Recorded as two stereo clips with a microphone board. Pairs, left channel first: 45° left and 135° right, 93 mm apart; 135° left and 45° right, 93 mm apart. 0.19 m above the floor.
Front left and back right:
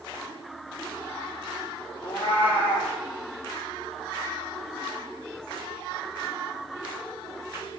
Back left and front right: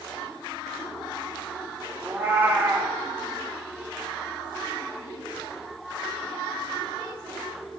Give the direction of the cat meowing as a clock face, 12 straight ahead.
11 o'clock.